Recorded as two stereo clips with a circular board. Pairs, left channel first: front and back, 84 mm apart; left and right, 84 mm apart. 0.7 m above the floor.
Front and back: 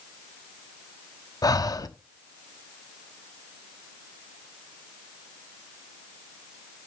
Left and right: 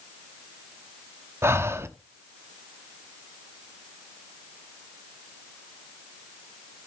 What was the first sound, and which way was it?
Breathing, 35° right.